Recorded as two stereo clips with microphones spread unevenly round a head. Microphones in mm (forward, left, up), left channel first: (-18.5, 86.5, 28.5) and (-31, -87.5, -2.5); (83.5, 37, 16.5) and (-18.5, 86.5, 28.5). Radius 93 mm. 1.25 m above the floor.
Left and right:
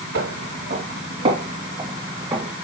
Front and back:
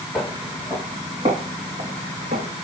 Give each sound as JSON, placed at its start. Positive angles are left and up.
{"t": 0.1, "sound": "footsteps", "azimuth_deg": -120, "distance_m": 2.0}